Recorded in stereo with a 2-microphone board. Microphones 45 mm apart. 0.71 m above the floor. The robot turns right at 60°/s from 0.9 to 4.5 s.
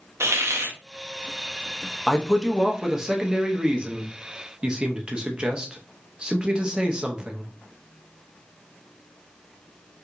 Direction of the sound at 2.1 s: 10° left (ahead or behind).